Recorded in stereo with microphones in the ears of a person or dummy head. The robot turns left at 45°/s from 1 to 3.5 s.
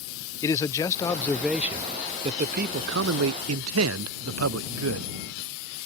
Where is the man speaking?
20° left; by 5.1 s 95° right.